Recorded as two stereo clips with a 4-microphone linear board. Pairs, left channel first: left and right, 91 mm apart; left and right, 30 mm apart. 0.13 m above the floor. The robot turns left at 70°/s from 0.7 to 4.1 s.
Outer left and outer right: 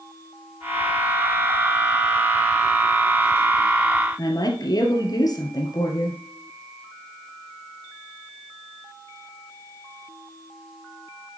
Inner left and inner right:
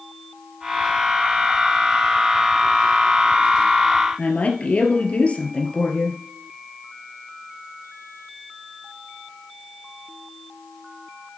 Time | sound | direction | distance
4.2 | a woman speaking | 50° left (ahead or behind) | 2 m